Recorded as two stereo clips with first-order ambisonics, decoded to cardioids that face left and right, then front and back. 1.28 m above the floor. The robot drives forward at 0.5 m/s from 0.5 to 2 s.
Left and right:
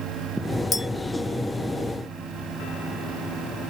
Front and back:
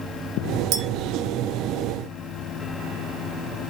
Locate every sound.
0.7 s a clink: 155° left, 0.6 m